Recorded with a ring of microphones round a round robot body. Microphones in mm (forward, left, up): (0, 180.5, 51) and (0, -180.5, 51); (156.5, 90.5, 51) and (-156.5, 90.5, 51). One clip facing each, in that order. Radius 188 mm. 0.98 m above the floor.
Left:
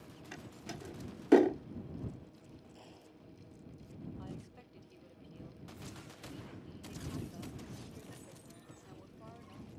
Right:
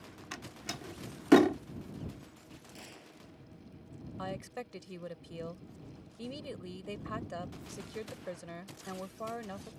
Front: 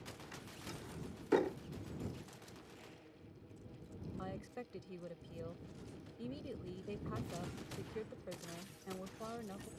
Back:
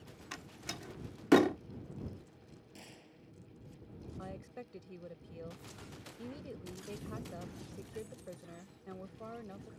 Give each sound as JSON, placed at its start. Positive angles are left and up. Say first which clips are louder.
{"t": 0.3, "sound": "a door slam", "louder": "right 1 dB, back 5 dB", "azimuth_deg": -150}
{"t": 2.8, "sound": "a gunshot", "louder": "right 3 dB, back 1 dB", "azimuth_deg": -135}
{"t": 4.2, "sound": "a woman speaking", "louder": "right 7 dB, even", "azimuth_deg": -85}